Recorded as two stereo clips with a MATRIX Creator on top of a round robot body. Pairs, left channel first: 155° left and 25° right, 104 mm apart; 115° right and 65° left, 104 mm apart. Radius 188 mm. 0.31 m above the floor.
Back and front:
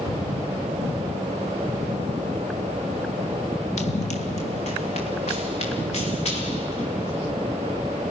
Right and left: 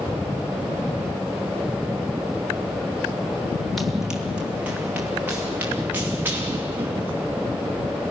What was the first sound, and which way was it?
Running footsteps, 160° left.